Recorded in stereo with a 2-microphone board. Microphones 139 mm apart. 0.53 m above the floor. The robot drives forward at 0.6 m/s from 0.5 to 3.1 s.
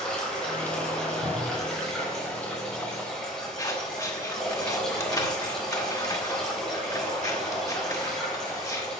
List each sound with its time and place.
0.0 s running water: 5° left (ahead or behind), 3.5 m
1.2 s a cupboard door: 75° right (ahead or behind), 1.7 m; by 1.7 s 70° right (ahead or behind), 1.8 m
3.6 s scissors: 25° left (ahead or behind), 1.5 m